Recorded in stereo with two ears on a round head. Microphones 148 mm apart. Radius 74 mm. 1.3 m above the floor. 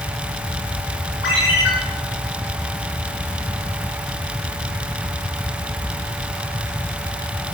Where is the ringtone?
80° left, 8 m.